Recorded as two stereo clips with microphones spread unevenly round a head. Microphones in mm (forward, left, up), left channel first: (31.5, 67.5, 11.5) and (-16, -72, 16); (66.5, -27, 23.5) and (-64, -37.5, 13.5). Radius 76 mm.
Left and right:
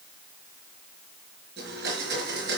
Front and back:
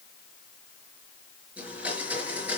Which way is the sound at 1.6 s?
95° right.